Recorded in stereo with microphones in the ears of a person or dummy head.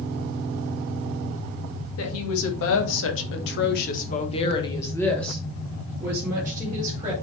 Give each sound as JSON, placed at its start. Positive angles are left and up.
{"t": 2.0, "sound": "a woman speaking", "side_deg": 80, "distance_m": 2.5}